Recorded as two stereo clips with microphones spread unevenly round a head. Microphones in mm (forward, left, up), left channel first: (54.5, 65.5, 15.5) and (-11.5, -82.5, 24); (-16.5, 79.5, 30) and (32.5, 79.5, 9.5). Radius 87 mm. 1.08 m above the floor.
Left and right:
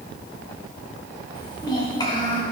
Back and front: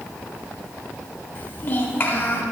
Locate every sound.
1.4 s a child speaking: 135° left, 3 m